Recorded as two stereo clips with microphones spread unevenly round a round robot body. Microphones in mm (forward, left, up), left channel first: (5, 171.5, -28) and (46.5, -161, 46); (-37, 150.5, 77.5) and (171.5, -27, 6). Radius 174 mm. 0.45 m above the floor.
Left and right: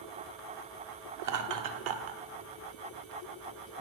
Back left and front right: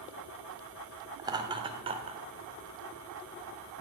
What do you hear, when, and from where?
1.2 s laughter: 70° right, 1.4 m; by 2.2 s 90° right, 1.9 m